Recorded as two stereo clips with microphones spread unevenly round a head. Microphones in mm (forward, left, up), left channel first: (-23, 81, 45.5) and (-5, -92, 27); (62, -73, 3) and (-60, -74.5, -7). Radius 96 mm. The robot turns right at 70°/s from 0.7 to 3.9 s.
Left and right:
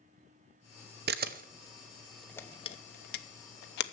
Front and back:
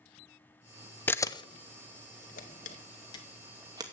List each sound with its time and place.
1.1 s a camera shutter: 75° right, 0.8 m; by 3.8 s 115° left, 0.8 m